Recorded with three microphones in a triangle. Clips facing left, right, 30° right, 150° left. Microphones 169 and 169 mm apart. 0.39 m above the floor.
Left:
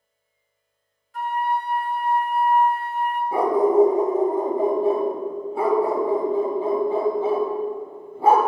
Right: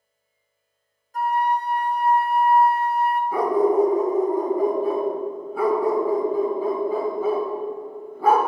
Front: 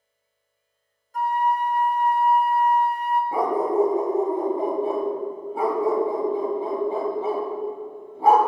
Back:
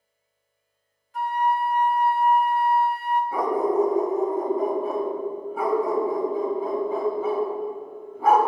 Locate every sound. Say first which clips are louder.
1.1 s a flute: right 2 dB, front 1 dB; 60° right, 0.7 m
3.3 s a dog barking: left 2 dB, even; 25° left, 0.9 m